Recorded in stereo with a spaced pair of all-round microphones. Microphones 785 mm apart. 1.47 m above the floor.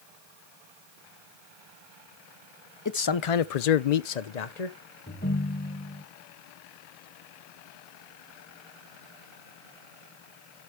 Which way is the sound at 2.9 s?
25° left (ahead or behind).